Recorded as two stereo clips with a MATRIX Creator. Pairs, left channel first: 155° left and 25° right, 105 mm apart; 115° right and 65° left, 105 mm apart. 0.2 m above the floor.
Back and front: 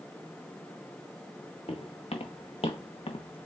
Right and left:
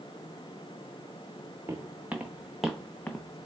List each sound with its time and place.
1.7 s footsteps: 135° left, 1.2 m; by 3.5 s 170° right, 0.6 m